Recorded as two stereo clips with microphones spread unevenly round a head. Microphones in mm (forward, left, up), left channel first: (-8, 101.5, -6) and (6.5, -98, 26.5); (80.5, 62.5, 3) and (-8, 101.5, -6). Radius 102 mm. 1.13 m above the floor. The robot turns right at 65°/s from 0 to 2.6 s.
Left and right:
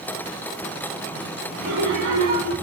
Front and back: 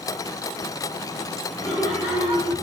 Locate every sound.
1.6 s laughter: 90° right, 3 m; by 2.5 s 25° right, 3 m